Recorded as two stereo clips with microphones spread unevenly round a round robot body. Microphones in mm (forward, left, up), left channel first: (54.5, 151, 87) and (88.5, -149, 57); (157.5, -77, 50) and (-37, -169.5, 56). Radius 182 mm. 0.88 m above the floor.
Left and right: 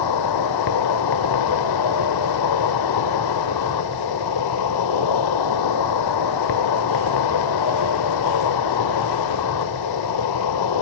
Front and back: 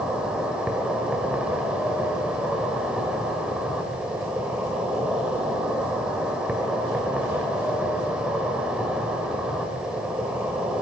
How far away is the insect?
About 1.7 m.